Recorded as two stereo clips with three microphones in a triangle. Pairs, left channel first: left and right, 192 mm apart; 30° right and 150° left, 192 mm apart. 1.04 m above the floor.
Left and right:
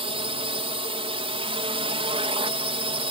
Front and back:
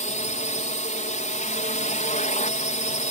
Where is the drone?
50° right.